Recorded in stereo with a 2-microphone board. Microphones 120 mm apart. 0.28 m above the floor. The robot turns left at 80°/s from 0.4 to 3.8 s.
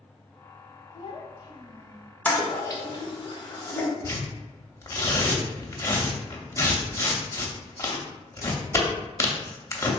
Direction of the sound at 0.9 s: 105° left.